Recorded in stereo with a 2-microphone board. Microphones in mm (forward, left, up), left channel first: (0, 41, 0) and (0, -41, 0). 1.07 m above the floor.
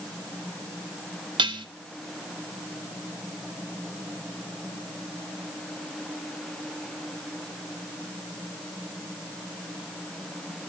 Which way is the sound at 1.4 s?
75° right (ahead or behind).